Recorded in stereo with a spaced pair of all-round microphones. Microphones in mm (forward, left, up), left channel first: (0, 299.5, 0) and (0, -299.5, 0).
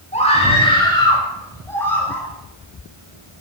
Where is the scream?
10° left (ahead or behind), 9.5 m; by 2.3 s centre (ahead or behind), 10.5 m.